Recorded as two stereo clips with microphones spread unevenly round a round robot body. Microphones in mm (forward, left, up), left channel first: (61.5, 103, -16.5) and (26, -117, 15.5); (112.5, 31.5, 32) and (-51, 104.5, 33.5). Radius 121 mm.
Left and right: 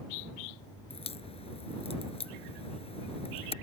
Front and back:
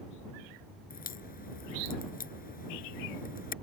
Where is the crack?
15° left.